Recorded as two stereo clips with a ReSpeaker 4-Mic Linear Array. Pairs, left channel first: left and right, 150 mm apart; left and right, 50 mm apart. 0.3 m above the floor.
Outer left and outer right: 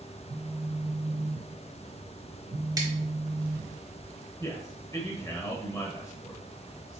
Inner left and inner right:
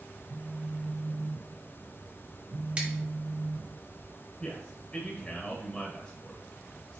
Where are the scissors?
25° right (ahead or behind), 1.0 m.